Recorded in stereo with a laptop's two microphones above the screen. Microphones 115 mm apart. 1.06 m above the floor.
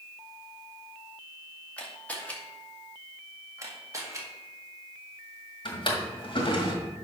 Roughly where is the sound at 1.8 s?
Centre.